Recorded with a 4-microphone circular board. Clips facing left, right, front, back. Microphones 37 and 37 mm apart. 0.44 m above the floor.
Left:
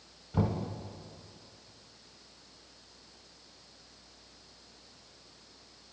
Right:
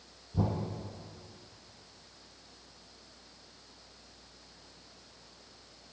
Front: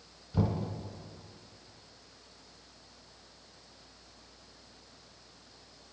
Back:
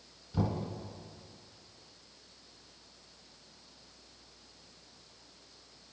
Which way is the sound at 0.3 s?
75° left.